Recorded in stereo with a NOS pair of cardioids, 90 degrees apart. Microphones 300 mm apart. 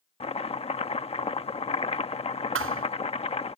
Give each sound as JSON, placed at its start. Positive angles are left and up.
{"t": 0.2, "sound": "chopping", "azimuth_deg": 20}
{"t": 2.5, "sound": "a thud", "azimuth_deg": -45}